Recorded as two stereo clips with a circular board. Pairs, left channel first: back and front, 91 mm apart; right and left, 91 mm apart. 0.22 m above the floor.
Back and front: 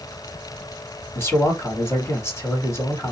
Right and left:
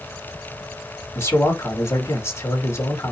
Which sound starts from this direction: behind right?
A man speaking, at 1.1 s.